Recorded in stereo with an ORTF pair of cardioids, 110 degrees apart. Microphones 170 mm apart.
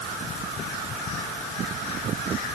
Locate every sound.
Only background noise.